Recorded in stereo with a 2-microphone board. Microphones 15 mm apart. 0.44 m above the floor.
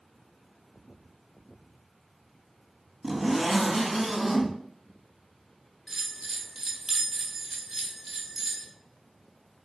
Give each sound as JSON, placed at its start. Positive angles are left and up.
{"t": 3.0, "sound": "a zipper", "side_deg": -20, "distance_m": 2.0}
{"t": 5.9, "sound": "a bell", "side_deg": -40, "distance_m": 1.3}